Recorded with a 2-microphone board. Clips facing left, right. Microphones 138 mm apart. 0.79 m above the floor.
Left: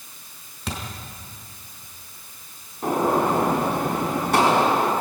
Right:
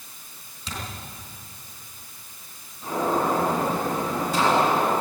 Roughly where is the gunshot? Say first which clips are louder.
Left 3 dB; left.